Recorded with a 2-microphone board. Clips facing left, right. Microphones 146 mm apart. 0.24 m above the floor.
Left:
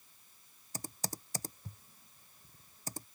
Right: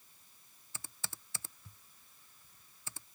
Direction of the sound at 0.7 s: 40° left (ahead or behind).